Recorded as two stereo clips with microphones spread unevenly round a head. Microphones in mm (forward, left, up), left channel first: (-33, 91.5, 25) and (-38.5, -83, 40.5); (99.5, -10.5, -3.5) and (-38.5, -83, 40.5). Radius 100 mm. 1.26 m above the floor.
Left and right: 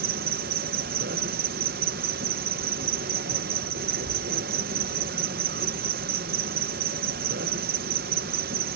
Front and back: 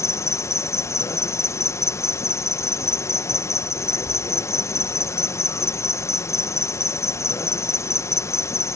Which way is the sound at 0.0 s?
45° right.